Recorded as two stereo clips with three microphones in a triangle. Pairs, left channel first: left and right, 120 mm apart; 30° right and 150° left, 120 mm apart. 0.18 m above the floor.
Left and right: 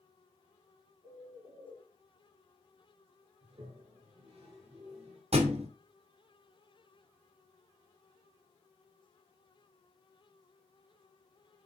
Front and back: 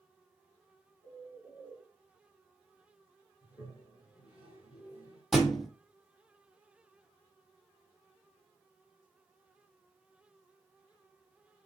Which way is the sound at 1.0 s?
120° right.